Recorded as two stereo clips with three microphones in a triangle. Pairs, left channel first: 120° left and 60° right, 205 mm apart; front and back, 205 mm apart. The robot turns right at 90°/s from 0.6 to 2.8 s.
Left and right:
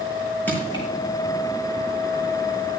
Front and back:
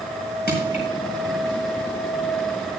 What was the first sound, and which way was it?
Crushing, 40° left.